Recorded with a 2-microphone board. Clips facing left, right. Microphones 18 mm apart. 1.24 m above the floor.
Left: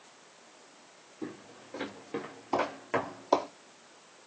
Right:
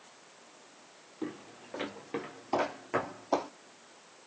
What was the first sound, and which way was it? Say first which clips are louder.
Footsteps: right 2 dB; 45° right (ahead or behind).